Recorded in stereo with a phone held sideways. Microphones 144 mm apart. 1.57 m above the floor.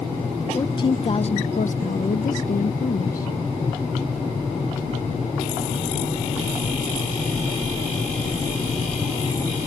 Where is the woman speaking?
25° left (ahead or behind); by 3.3 s 75° left (ahead or behind).